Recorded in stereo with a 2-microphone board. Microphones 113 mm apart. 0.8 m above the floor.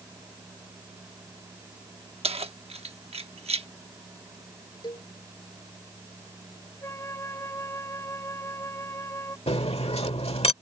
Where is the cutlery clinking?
70° left (ahead or behind).